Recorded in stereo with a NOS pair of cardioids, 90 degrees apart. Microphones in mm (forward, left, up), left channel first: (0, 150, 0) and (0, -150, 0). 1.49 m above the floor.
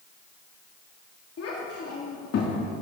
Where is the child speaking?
55° left, 2.5 m.